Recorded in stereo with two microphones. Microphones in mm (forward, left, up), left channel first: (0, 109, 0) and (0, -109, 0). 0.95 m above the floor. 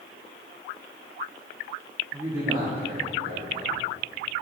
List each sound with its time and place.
2.1 s a man speaking: 10° right (ahead or behind), 2.5 m; by 3.8 s 50° right (ahead or behind), 3.5 m